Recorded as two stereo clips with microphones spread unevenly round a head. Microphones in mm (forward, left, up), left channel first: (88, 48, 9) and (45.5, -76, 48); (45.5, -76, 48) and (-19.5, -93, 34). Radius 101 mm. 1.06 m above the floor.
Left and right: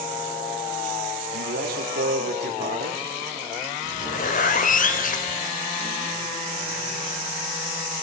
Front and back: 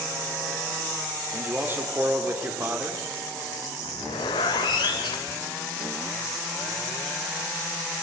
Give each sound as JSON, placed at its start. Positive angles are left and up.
{"t": 1.3, "sound": "a man speaking", "azimuth_deg": -110, "distance_m": 3.5}
{"t": 3.8, "sound": "a zipper", "azimuth_deg": 50, "distance_m": 2.5}